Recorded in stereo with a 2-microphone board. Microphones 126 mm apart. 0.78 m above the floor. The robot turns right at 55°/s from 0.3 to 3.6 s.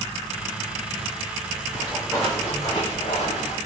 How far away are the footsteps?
About 2 m.